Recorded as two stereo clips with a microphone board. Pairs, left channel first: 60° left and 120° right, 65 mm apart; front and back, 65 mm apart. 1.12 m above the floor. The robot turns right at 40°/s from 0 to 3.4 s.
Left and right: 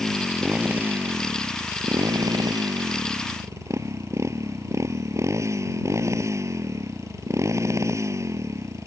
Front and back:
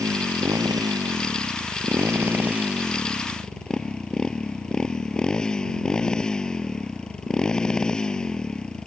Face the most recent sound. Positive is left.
turn(degrees=-80)